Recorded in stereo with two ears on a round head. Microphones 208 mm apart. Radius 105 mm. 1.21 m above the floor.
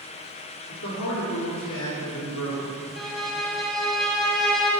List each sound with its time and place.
0.7 s a man speaking: 85° left, 3 m
3.0 s a violin: centre (ahead or behind), 1.2 m